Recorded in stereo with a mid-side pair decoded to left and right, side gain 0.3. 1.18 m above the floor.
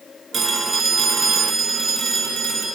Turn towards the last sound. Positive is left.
turn(degrees=-65)